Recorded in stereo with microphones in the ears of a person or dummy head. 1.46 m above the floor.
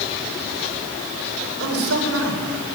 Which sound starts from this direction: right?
A man speaking, at 1.6 s.